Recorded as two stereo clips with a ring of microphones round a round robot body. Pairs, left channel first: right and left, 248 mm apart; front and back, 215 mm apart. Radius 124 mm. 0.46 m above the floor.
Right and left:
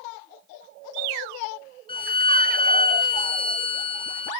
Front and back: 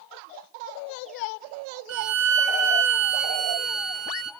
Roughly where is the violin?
Behind.